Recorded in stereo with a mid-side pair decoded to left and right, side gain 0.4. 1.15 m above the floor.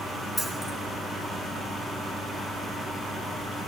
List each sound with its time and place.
0.4 s keys jangling: 5° left, 2.0 m